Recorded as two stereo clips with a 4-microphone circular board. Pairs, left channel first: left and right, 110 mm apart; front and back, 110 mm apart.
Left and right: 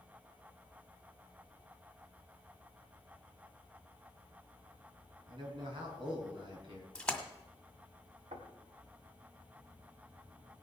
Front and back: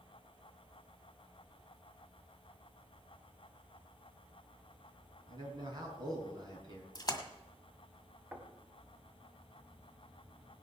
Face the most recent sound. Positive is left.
turn(degrees=-100)